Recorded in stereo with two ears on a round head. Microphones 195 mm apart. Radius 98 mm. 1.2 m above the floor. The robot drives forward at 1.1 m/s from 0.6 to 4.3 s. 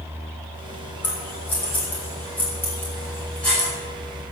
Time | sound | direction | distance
1.0 | scissors | 10° left (ahead or behind) | 6 m